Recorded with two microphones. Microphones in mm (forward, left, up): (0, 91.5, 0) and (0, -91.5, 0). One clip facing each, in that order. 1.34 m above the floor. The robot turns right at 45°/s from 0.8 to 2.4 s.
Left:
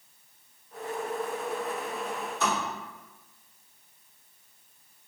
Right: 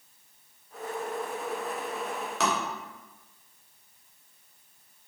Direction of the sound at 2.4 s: 80° right.